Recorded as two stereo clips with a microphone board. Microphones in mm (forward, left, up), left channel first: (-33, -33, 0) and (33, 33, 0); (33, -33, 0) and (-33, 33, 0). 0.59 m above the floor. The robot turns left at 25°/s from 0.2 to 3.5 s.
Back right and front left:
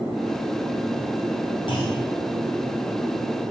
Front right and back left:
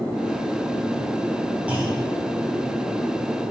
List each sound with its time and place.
1.7 s a clunk: 150° right, 4.5 m; by 2.0 s 160° right, 4.5 m